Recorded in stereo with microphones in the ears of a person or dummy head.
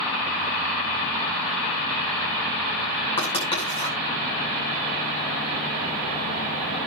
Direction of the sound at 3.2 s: 25° left (ahead or behind).